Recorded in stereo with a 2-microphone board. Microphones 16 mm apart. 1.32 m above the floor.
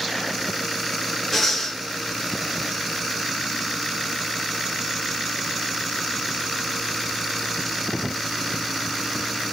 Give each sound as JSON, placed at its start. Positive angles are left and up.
{"t": 1.3, "sound": "breathing", "side_deg": -5, "distance_m": 2.0}